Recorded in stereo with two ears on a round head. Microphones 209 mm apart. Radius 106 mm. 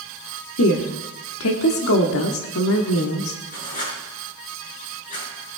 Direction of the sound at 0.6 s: 60° left (ahead or behind).